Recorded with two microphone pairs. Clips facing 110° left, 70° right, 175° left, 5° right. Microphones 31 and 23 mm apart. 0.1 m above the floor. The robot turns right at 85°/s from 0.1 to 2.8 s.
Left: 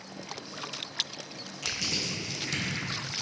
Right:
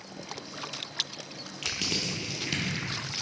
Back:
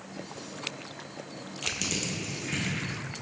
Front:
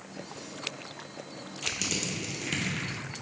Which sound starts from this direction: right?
Crushing, at 1.6 s.